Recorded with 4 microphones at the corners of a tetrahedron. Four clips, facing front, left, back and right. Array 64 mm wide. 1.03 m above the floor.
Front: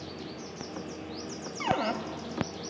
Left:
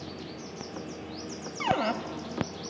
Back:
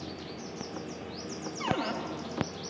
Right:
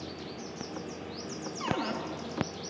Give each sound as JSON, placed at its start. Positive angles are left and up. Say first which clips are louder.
{"t": 1.6, "sound": "a cupboard door", "louder": "left 6 dB, front 3 dB", "azimuth_deg": 65, "distance_m": 1.9}